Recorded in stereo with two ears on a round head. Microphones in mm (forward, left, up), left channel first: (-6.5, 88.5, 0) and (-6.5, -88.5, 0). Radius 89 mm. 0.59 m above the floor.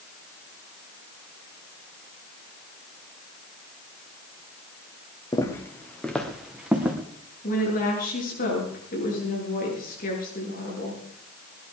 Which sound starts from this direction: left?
A woman speaking, at 7.4 s.